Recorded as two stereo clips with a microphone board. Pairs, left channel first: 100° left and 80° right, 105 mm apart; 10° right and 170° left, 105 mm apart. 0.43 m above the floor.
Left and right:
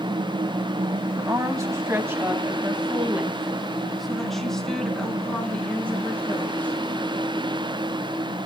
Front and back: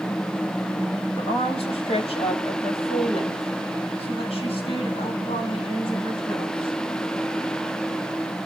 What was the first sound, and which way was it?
A woman speaking, 30° right.